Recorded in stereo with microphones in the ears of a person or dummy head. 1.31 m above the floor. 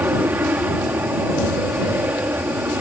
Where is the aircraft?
15° right (ahead or behind).